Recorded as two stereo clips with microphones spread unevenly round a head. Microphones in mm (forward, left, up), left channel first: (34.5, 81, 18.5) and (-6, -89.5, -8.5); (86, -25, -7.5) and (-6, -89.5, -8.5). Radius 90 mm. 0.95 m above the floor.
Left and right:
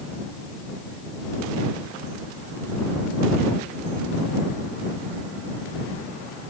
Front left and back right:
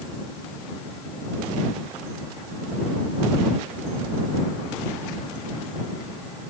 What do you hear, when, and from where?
Only background noise.